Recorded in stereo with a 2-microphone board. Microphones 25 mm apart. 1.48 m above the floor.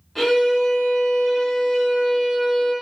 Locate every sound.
0.1 s a violin: 10° left (ahead or behind), 1.0 m